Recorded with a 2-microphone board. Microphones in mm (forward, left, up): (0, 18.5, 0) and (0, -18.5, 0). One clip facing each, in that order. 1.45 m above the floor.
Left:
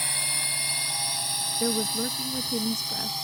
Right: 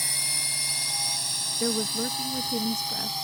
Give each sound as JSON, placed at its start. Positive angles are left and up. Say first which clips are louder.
{"t": 0.0, "sound": "a drone", "louder": "left 1 dB", "side_deg": 35}
{"t": 1.6, "sound": "a woman speaking", "louder": "even", "side_deg": -10}